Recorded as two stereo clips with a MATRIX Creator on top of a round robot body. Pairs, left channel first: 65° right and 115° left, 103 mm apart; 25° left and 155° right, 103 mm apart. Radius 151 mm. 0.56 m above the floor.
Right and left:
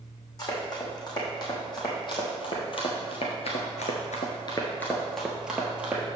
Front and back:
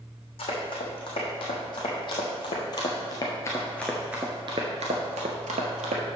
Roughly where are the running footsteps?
Ahead.